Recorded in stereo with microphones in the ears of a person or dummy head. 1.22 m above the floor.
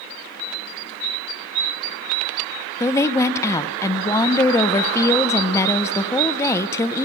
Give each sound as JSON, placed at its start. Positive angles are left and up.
{"t": 2.8, "sound": "a woman speaking", "side_deg": 20, "distance_m": 0.6}